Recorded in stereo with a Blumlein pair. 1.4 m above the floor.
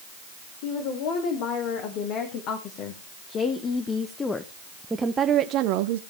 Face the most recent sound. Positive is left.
turn(degrees=-55)